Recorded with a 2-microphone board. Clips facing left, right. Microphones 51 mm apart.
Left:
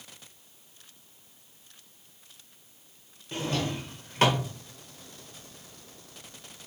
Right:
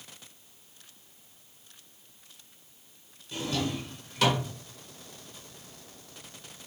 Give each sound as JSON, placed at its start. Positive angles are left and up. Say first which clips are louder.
{"t": 3.3, "sound": "a drawer", "louder": "left 1 dB", "side_deg": 40, "distance_m": 0.6}